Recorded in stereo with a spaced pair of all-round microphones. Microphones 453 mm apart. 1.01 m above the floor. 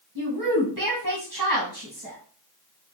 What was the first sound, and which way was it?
A woman speaking, 45° right (ahead or behind).